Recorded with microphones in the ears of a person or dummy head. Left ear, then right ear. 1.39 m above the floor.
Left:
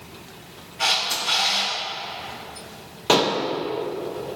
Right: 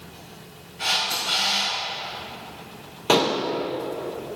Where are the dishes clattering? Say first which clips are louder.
Left 1 dB; centre (ahead or behind), 0.7 m.